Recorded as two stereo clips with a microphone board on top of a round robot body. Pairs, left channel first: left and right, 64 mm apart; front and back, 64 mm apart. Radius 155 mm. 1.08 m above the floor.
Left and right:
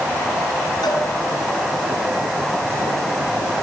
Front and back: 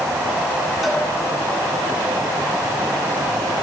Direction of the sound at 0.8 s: 90° left.